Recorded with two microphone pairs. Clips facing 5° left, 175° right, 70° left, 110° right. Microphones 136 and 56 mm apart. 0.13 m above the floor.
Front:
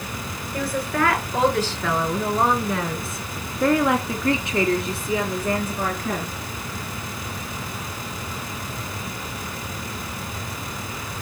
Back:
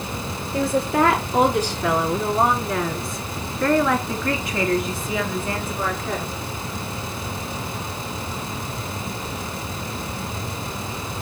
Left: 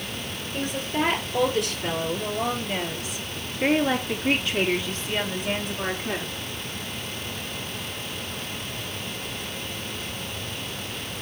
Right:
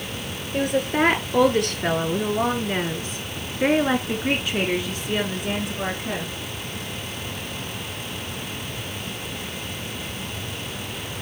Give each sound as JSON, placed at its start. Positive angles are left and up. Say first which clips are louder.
{"t": 0.5, "sound": "a woman speaking", "louder": "back 5 dB, right 6 dB", "azimuth_deg": -115, "distance_m": 3.0}